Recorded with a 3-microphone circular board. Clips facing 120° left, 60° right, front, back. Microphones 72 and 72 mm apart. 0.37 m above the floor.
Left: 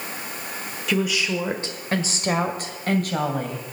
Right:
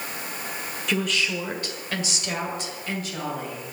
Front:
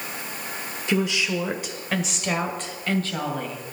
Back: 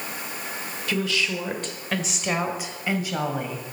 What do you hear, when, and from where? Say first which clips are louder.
0.9 s a woman speaking: left 3 dB, front 3 dB; 35° left, 1.3 m; by 3.8 s 110° left, 2.5 m